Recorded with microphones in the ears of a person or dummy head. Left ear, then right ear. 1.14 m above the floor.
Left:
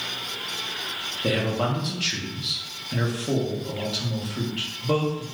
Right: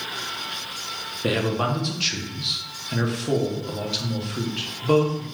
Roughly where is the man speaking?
Centre.